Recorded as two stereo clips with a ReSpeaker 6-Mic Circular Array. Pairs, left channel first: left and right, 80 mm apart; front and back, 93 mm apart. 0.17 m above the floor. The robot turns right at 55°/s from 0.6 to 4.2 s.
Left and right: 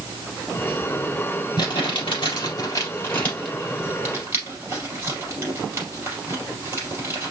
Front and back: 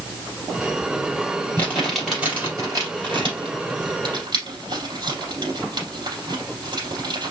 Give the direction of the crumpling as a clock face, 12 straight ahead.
10 o'clock.